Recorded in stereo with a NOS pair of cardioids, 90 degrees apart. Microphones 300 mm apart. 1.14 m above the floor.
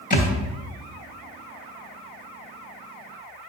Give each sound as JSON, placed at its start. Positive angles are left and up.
{"t": 0.1, "sound": "a thud", "azimuth_deg": 30, "distance_m": 2.0}